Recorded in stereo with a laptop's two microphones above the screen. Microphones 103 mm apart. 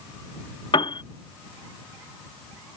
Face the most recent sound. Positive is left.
turn(degrees=60)  # may be behind; listen again after turning